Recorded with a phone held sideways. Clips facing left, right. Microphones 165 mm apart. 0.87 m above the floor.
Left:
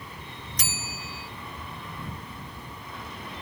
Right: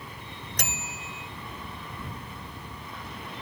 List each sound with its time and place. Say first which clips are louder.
0.6 s a bell: right 1 dB; 65° right (ahead or behind)